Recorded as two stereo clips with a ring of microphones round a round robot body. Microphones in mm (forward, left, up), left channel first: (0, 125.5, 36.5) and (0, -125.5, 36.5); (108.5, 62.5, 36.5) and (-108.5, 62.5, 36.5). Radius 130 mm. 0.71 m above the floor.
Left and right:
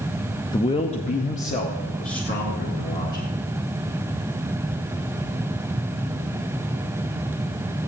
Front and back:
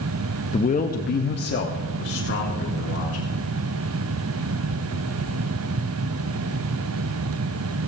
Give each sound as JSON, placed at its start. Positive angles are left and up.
{"t": 0.5, "sound": "a man speaking", "azimuth_deg": 30, "distance_m": 0.6}